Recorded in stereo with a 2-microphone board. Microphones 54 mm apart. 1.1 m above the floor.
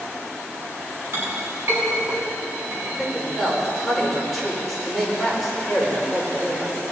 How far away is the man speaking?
About 4.5 m.